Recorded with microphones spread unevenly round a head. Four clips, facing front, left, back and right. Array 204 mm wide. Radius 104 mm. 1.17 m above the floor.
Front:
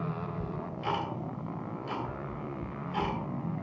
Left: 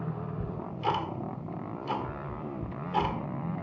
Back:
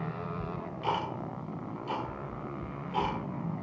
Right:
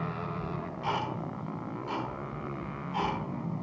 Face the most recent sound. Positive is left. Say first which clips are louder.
# left 2 dB, back 1 dB
turn(degrees=120)